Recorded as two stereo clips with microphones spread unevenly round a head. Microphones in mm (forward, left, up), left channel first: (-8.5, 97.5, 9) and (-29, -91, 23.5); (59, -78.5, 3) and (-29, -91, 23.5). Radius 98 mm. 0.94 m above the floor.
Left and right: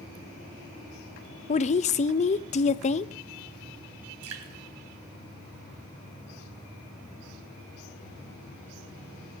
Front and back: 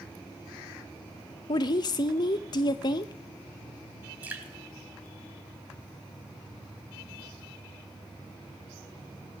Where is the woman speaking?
35° left, 0.6 m.